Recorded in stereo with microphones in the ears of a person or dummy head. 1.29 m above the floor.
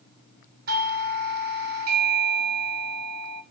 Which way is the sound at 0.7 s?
45° right (ahead or behind).